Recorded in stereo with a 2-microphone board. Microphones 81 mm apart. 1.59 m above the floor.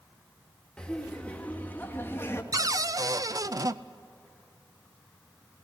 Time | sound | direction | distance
0.8 | laughter | 10° left (ahead or behind) | 2.5 m
2.5 | a cupboard door | 45° right (ahead or behind) | 0.6 m